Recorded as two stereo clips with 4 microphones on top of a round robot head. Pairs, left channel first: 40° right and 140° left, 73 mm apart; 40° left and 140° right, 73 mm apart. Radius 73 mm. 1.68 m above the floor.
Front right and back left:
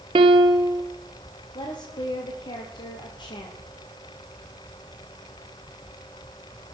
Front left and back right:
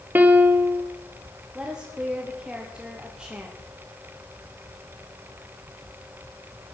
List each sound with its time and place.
0.1 s a piano: 155° left, 0.7 m
1.6 s a woman speaking: 60° right, 1.2 m